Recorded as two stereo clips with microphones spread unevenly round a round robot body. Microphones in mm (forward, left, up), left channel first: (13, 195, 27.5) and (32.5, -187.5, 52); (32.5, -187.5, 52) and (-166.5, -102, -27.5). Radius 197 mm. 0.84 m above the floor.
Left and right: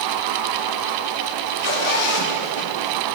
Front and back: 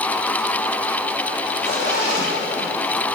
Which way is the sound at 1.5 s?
90° left.